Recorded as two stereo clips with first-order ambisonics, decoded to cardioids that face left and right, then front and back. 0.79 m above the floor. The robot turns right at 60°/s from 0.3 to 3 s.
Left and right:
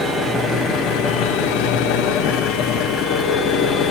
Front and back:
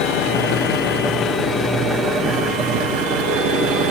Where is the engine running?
5° right, 4.5 m; by 3.9 s 160° left, 4.5 m.